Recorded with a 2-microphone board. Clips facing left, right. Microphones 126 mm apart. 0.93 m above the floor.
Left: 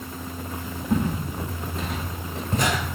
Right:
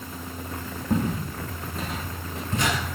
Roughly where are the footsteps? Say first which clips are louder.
Left 1 dB; right.